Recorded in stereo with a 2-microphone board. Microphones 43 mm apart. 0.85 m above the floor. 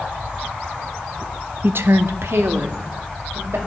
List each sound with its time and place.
1.6 s a woman speaking: 50° right (ahead or behind), 0.5 m; by 3.6 s 80° right, 3.5 m